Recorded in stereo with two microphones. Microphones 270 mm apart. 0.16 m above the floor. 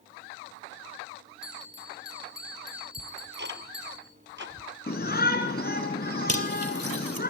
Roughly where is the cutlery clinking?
Right.